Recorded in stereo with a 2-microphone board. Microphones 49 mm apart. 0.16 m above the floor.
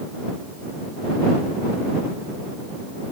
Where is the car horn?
I don't hear a car horn.